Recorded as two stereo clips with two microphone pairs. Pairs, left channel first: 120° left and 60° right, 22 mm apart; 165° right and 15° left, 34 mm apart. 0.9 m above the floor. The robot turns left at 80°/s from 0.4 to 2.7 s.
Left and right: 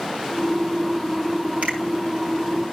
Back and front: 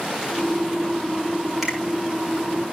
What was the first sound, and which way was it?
A finger snap, 70° right.